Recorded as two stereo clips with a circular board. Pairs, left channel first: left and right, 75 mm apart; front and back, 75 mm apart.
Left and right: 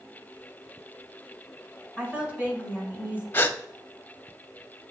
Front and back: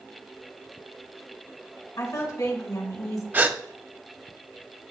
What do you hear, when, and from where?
2.0 s a woman speaking: 20° right, 2.5 m
3.3 s a gasp: 135° left, 0.5 m